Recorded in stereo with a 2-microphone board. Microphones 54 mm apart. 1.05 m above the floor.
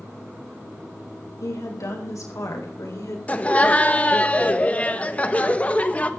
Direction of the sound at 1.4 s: 75° left (ahead or behind).